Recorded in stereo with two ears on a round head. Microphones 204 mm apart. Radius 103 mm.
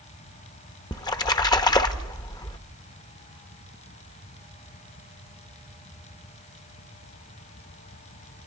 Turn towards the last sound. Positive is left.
turn(degrees=15)  # may be behind; listen again after turning